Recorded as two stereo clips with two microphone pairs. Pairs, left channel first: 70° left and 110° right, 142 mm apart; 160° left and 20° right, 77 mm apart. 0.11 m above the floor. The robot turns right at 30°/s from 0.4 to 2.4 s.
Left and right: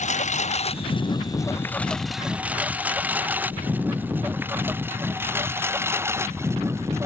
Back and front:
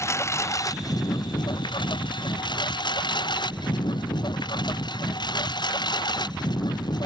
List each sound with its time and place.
0.0 s a lawn mower: 105° left; by 7.1 s straight behind